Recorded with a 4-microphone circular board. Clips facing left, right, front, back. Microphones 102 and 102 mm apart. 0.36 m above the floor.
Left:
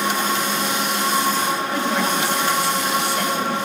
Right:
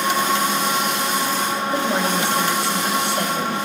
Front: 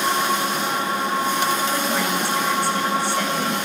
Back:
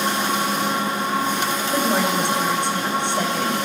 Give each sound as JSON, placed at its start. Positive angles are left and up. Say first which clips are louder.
{"t": 1.7, "sound": "a woman speaking", "louder": "right 1 dB, back 3 dB", "azimuth_deg": -130, "distance_m": 0.9}